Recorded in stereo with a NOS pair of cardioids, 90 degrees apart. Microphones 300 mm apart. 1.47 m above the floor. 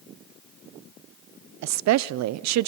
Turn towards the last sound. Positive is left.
turn(degrees=-65)